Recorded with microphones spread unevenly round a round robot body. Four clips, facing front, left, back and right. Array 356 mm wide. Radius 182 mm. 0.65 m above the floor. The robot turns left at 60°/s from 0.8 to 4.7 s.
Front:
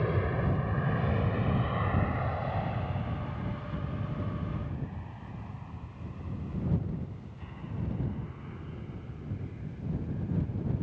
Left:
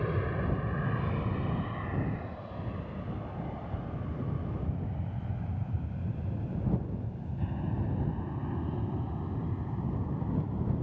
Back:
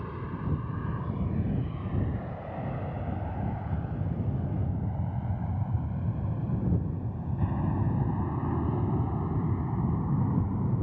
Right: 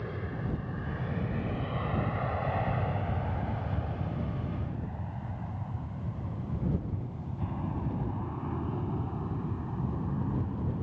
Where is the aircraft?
25° left; by 10.8 s 175° right.